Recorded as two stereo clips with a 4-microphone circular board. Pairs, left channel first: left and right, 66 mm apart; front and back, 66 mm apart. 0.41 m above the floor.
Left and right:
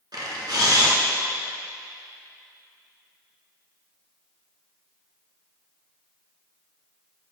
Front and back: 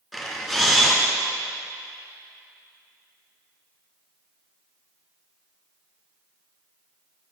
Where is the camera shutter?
90° right, 1.5 m.